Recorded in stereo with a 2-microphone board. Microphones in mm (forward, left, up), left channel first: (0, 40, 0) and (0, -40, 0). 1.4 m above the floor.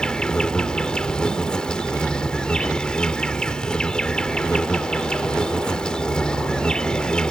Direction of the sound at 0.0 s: 10° left (ahead or behind).